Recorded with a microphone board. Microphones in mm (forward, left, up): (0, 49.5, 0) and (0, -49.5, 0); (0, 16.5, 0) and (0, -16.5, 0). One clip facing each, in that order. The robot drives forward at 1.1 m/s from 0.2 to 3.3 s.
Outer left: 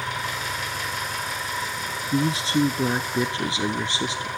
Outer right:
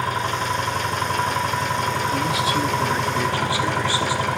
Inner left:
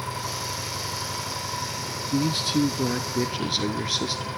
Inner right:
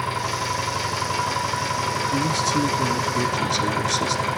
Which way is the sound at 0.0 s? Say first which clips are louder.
Outer right 6 dB, inner right 6 dB; 45° right (ahead or behind).